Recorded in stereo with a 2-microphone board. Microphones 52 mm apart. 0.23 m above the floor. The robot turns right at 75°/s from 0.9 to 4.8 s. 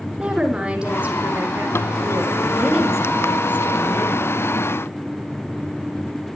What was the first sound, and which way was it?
A woman speaking, 160° right.